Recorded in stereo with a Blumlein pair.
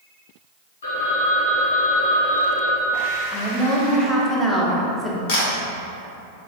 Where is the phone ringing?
60° left, 1.0 m.